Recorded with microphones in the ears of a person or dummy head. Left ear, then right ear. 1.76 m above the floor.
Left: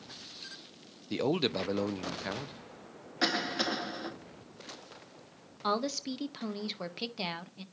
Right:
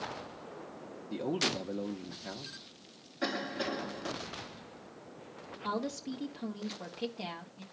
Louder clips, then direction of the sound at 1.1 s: Left 2 dB; 45° left (ahead or behind).